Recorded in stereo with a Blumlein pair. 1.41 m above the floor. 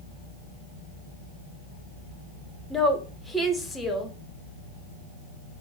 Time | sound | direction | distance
2.7 | a woman speaking | 10° left | 0.6 m